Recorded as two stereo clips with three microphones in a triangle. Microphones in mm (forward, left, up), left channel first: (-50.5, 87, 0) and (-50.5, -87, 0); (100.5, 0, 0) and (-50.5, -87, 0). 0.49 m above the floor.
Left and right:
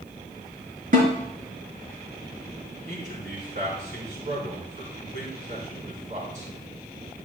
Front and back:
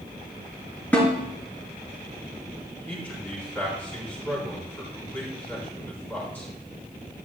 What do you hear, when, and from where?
0.9 s a snare drum: 50° right, 4 m
2.9 s a man speaking: 50° right, 4.5 m